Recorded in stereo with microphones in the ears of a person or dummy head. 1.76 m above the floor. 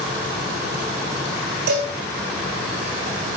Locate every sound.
1.7 s a cowbell: 60° right (ahead or behind), 5.5 m